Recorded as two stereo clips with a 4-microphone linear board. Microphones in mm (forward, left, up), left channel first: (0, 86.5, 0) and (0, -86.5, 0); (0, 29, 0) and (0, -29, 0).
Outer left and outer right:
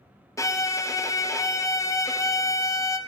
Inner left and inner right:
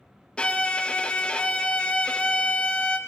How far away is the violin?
About 0.5 m.